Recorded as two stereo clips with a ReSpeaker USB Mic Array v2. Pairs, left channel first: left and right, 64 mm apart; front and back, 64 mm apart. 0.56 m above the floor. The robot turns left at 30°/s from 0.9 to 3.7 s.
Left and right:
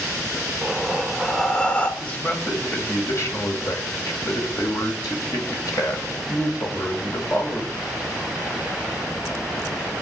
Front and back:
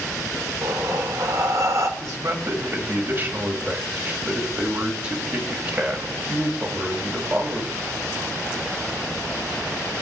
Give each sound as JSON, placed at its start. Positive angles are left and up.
{"t": 0.6, "sound": "breathing", "azimuth_deg": -175, "distance_m": 1.3}
{"t": 2.0, "sound": "a man speaking", "azimuth_deg": 160, "distance_m": 2.5}